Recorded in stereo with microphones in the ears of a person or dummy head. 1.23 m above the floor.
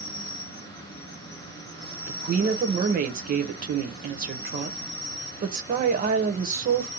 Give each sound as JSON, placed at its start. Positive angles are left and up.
{"t": 0.0, "sound": "an insect", "side_deg": 25, "distance_m": 1.4}
{"t": 2.1, "sound": "a woman speaking", "side_deg": -40, "distance_m": 0.6}